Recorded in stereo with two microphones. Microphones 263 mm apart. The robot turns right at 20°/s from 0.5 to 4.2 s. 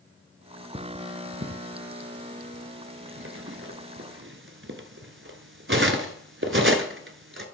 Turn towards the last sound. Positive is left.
turn(degrees=-50)  # may be behind; listen again after turning